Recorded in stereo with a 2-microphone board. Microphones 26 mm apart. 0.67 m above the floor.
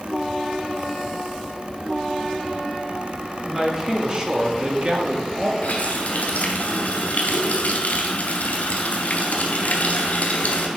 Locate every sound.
3.5 s a man speaking: 15° right (ahead or behind), 1.9 m; by 5.5 s 45° right (ahead or behind), 1.6 m
5.6 s a running tap: 80° left, 2.0 m